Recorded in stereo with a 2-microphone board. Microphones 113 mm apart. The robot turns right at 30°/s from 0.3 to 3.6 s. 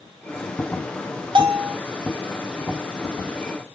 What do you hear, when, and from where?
1.4 s a bell: 45° right (ahead or behind), 0.5 m